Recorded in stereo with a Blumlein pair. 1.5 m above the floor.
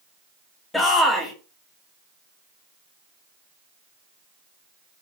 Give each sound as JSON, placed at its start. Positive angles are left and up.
{"t": 0.7, "sound": "a shout", "azimuth_deg": 5, "distance_m": 1.5}